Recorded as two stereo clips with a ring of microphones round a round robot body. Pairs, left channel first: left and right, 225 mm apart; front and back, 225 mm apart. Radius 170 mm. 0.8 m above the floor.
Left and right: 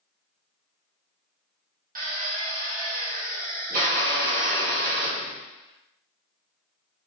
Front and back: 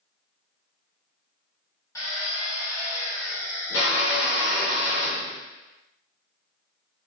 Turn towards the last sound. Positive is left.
turn(degrees=-70)